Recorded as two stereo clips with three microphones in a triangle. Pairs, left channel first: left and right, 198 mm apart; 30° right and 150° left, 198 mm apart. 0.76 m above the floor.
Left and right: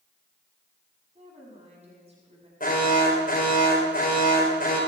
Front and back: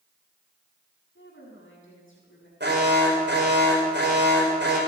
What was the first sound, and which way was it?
A woman speaking, 30° right.